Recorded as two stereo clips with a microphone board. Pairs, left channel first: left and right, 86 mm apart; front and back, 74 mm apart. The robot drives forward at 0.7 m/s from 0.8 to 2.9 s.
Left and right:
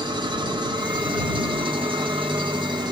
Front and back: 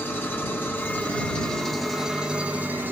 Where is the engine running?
65° right, 1.7 m; by 2.9 s 115° right, 1.7 m.